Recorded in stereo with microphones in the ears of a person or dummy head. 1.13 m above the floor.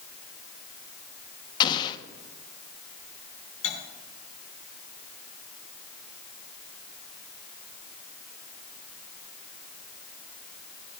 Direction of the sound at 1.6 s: 25° left (ahead or behind).